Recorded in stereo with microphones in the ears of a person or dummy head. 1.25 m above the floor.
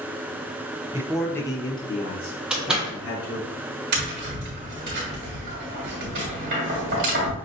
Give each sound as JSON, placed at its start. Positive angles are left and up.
{"t": 0.9, "sound": "a man speaking", "side_deg": -25, "distance_m": 0.5}
{"t": 2.5, "sound": "a door slam", "side_deg": -5, "distance_m": 1.1}
{"t": 3.9, "sound": "tapping", "side_deg": -45, "distance_m": 1.4}